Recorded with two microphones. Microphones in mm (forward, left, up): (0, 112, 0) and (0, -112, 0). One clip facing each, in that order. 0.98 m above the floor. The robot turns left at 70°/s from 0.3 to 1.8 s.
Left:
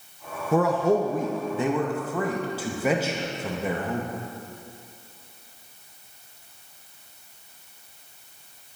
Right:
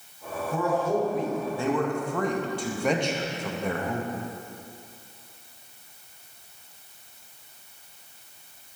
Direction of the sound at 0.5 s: 75° left (ahead or behind).